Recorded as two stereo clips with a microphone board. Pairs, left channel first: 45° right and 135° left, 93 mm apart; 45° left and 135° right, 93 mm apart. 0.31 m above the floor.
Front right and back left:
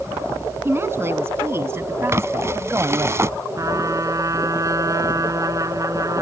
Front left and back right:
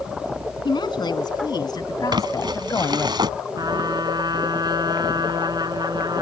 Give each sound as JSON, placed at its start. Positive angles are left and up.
{"t": 0.7, "sound": "a woman speaking", "azimuth_deg": 75}
{"t": 2.1, "sound": "crumpling", "azimuth_deg": -170}
{"t": 3.6, "sound": "a trumpet", "azimuth_deg": -175}